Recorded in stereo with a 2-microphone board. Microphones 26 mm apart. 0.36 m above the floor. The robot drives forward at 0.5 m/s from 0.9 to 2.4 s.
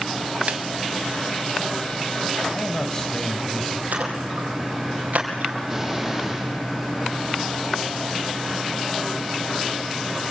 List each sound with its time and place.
0.5 s a snare drum: 65° right (ahead or behind), 0.9 m
2.5 s a man speaking: 25° left (ahead or behind), 3 m
3.9 s a splash: 85° right, 5 m
5.7 s an explosion: 5° right (ahead or behind), 9 m